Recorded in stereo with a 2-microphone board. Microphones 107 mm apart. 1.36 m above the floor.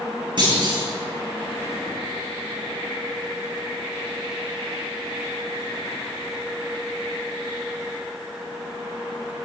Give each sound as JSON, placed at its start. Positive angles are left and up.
{"t": 0.4, "sound": "a clunk", "side_deg": -50, "distance_m": 5.0}